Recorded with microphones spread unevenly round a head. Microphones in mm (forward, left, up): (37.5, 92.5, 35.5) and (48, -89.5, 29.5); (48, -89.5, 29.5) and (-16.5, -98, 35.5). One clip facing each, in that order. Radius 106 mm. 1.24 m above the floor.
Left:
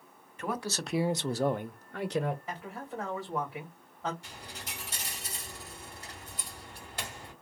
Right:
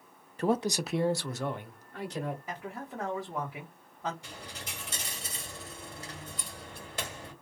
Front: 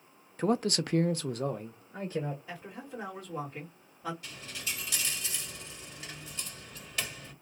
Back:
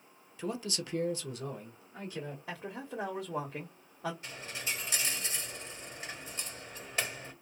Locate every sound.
0.4 s a man speaking: 35° right, 0.6 m; by 2.4 s 70° left, 0.9 m
2.5 s a man speaking: 170° right, 1.2 m
4.2 s a dropped coin: 120° right, 1.6 m